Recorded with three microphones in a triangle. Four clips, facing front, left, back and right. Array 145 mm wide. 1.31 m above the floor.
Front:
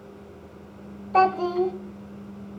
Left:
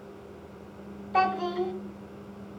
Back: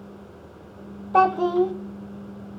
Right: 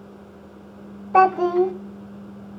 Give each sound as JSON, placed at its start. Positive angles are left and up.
{"t": 1.1, "sound": "a child speaking", "azimuth_deg": -100, "distance_m": 0.8}